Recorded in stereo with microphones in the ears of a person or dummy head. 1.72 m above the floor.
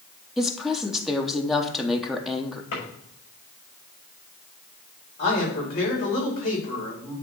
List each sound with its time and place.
0.4 s a woman speaking: 5° right (ahead or behind), 0.9 m
2.7 s a drawer: 50° left (ahead or behind), 4.5 m
5.2 s a man speaking: 45° left (ahead or behind), 4.5 m